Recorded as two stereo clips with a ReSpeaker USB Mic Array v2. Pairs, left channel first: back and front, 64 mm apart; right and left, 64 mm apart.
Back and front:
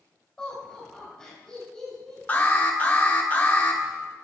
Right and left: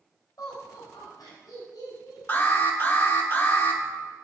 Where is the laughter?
100° right, 4 m.